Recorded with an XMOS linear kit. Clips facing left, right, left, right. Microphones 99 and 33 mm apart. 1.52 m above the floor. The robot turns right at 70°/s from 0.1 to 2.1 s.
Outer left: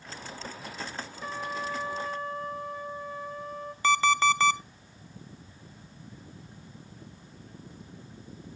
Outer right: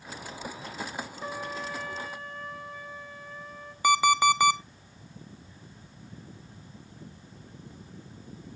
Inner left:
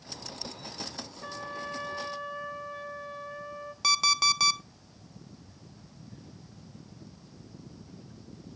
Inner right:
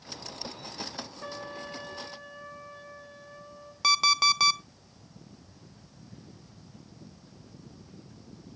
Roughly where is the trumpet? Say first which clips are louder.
Outer left 3 dB, inner left 3 dB; ahead.